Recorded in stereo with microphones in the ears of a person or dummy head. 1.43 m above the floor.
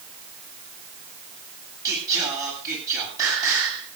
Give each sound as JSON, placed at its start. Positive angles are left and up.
{"t": 1.9, "sound": "singing", "side_deg": -15, "distance_m": 9.0}